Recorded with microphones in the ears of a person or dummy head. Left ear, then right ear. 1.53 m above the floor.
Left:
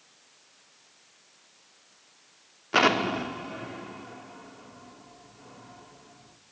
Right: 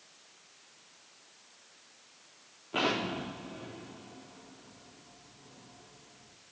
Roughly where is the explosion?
Left.